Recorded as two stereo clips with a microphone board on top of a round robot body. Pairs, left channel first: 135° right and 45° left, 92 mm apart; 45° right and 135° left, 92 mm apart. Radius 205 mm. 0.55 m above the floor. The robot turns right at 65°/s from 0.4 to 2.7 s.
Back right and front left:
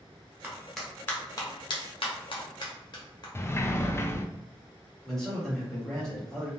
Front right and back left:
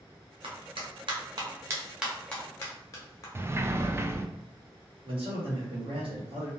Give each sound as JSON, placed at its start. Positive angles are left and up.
{"t": 0.4, "sound": "a clap", "azimuth_deg": 115, "distance_m": 1.2}
{"t": 3.4, "sound": "a sliding door", "azimuth_deg": 180, "distance_m": 0.6}
{"t": 5.0, "sound": "a man speaking", "azimuth_deg": 135, "distance_m": 1.2}